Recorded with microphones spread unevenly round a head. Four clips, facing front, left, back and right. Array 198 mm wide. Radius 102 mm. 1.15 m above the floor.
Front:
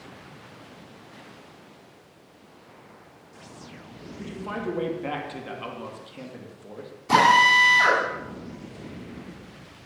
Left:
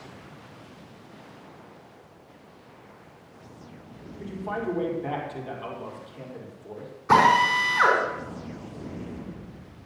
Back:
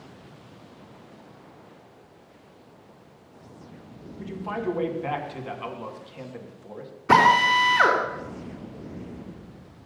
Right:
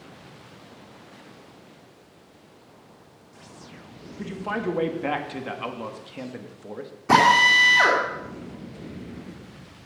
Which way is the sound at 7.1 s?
135° right.